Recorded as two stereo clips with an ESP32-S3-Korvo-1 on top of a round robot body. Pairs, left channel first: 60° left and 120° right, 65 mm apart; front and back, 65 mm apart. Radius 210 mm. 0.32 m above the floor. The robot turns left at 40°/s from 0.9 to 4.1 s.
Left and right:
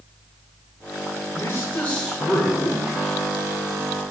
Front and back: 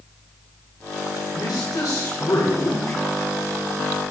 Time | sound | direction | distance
1.3 | a man speaking | 15° left | 5.5 m